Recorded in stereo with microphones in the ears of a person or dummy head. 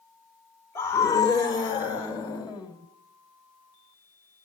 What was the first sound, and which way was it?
A scream, 15° left (ahead or behind).